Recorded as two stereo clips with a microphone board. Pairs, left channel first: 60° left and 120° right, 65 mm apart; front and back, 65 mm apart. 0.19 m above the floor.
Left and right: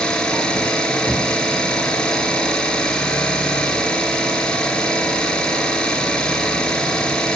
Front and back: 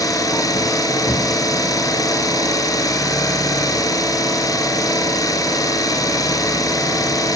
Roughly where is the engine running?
Ahead.